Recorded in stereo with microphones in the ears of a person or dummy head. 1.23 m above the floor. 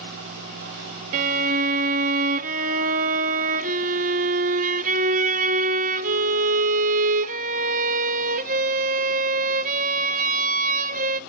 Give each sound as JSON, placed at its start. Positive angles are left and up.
{"t": 1.1, "sound": "a violin", "side_deg": -50, "distance_m": 0.6}